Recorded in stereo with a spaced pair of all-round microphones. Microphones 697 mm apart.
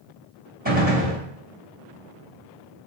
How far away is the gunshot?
About 3.5 m.